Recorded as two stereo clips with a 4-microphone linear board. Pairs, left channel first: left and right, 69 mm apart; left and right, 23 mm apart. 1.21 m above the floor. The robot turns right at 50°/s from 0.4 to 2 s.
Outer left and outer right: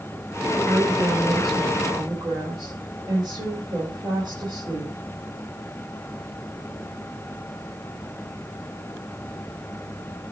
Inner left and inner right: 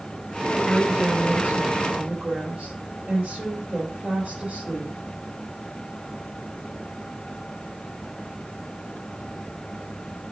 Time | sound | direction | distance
0.6 | a woman speaking | 140° right | 4.5 m